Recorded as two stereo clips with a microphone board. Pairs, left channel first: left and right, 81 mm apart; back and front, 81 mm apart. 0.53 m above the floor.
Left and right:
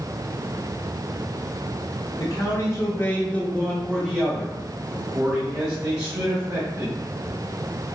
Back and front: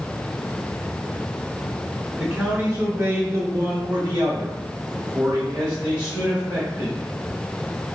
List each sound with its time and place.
2.2 s a man speaking: 70° left, 1.1 m; by 7.1 s 60° right, 2 m